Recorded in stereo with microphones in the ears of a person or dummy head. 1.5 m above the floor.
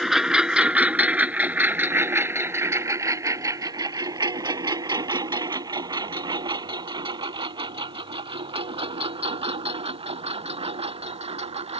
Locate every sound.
0.0 s a lawn mower: centre (ahead or behind); by 11.8 s 30° right (ahead or behind)